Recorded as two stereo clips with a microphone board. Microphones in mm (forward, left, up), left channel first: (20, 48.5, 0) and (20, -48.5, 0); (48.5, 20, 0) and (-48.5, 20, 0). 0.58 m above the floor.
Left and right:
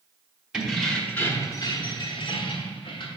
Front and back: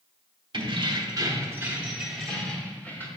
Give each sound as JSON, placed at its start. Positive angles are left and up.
{"t": 0.5, "sound": "keys jangling", "azimuth_deg": -170, "distance_m": 1.0}